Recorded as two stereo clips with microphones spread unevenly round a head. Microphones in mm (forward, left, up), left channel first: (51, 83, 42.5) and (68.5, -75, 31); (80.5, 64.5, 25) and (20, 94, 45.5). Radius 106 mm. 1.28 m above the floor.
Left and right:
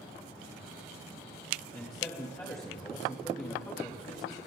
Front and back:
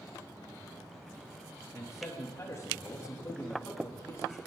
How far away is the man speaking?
About 3 m.